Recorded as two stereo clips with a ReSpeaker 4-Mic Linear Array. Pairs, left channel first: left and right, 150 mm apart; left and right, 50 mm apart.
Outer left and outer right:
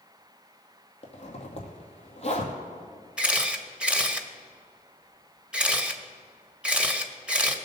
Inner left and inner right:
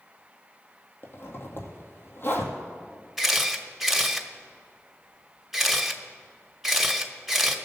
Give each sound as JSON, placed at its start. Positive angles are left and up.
{"t": 1.0, "sound": "a zipper", "side_deg": 45, "distance_m": 1.9}
{"t": 3.2, "sound": "a camera shutter", "side_deg": -5, "distance_m": 0.9}